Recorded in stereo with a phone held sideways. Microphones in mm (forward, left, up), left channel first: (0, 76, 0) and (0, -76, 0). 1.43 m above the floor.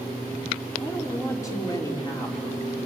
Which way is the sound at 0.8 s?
20° left (ahead or behind).